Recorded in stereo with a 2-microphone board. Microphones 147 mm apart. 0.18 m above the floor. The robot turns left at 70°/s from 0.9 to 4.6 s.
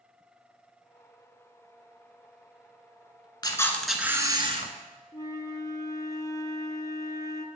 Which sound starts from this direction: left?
A flute, at 5.1 s.